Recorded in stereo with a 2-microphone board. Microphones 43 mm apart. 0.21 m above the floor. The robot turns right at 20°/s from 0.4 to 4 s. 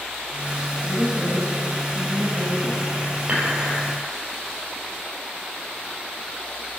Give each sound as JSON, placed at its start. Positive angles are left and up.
{"t": 0.8, "sound": "a woman speaking", "azimuth_deg": 90, "distance_m": 2.0}
{"t": 3.3, "sound": "dishes clattering", "side_deg": -30, "distance_m": 3.0}